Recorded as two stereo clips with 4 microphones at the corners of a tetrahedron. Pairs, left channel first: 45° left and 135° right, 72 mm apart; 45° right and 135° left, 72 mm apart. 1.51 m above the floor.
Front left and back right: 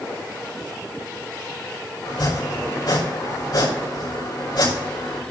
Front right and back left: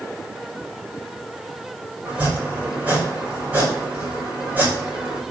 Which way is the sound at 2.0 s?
65° left.